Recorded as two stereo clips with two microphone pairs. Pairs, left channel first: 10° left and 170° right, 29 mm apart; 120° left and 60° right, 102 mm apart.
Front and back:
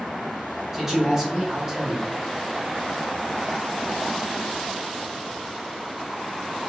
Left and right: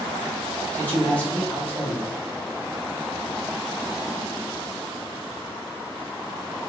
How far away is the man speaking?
About 1.0 m.